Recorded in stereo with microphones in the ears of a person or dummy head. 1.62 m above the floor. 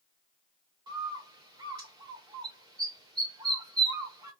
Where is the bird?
25° right (ahead or behind), 1.3 m.